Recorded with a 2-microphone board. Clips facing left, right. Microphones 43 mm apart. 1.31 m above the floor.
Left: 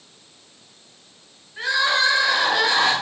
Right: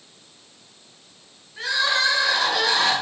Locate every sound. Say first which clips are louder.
1.6 s crying: left 2 dB; 15° left (ahead or behind), 8.5 m